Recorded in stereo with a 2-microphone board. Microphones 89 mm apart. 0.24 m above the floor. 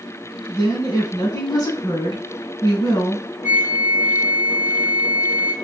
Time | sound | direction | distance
0.5 | a woman speaking | 45° left (ahead or behind) | 2.5 m
3.4 | a flute | 20° right (ahead or behind) | 1.5 m